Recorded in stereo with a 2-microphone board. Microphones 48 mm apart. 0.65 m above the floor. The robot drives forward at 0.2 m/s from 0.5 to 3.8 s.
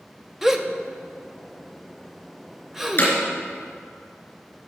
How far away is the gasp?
About 0.5 m.